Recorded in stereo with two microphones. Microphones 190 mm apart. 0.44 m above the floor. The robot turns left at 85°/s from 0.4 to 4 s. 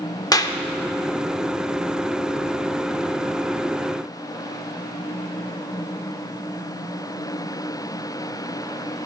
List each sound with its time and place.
0.3 s a clap: 20° left (ahead or behind), 0.6 m